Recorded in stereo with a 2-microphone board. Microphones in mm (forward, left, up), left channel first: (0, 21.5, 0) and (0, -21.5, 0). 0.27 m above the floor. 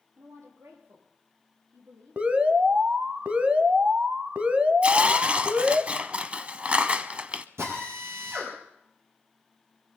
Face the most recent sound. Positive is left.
turn(degrees=-75)  # may be behind; listen again after turning